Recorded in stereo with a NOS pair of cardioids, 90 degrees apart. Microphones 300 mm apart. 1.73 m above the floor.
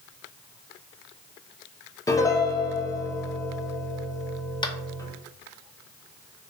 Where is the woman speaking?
No woman speaking in this recording.